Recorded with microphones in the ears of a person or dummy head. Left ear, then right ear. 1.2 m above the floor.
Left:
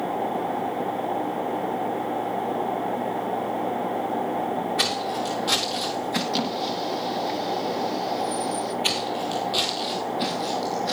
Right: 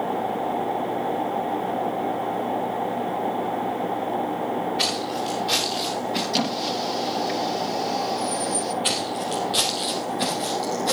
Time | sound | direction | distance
4.8 | footsteps | 75° left (ahead or behind) | 5 m
6.3 | a squeak | 15° right (ahead or behind) | 1.1 m
8.8 | footsteps | 25° left (ahead or behind) | 2.5 m